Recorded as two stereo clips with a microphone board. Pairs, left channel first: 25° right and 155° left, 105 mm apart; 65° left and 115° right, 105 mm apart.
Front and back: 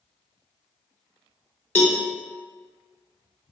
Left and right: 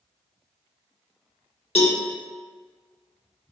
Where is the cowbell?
50° left, 0.6 m.